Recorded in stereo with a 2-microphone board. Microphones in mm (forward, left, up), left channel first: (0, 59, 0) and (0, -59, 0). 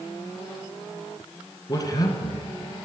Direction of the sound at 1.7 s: 35° left (ahead or behind).